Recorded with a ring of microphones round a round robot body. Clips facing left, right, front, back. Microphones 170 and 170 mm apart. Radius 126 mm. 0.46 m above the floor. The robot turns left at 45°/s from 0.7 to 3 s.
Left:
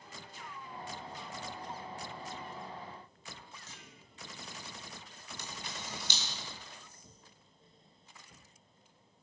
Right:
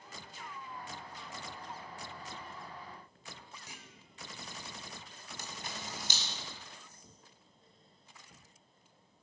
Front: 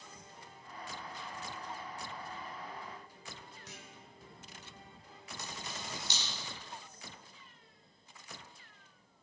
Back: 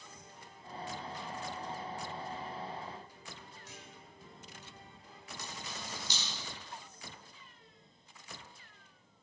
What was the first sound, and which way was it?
A clunk, 15° right.